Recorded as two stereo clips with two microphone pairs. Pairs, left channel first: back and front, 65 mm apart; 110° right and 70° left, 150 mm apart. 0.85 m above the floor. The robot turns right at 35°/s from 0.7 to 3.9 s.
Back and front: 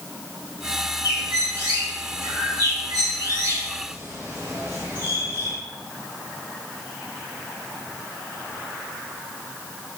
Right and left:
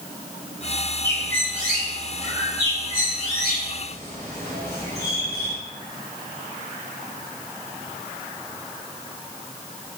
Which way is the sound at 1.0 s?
50° right.